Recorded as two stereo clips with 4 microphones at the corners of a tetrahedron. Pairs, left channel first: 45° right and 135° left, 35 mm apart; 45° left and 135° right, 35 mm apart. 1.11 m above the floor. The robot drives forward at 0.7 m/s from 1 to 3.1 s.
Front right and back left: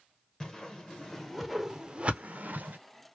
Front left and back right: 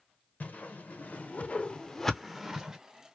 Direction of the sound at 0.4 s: 25° left.